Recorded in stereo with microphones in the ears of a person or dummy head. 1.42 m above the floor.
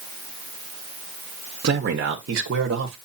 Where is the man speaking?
60° right (ahead or behind), 1.3 m; by 3.0 s 80° right, 1.5 m.